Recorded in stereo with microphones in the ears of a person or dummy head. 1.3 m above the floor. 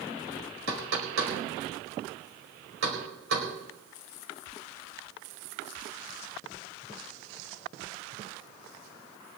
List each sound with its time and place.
0.7 s knocking: 70° right (ahead or behind), 4.5 m